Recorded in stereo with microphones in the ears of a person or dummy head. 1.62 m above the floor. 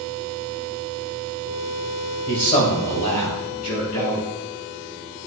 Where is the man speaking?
40° left (ahead or behind), 1.8 m; by 4.2 s 50° left (ahead or behind), 4 m.